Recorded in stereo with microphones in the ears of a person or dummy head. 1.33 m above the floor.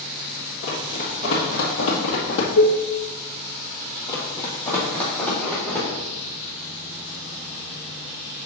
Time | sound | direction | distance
0.6 | running footsteps | 40° left (ahead or behind) | 1.9 m
2.6 | dishes clattering | 60° left (ahead or behind) | 0.8 m
4.1 | running footsteps | 20° left (ahead or behind) | 2.5 m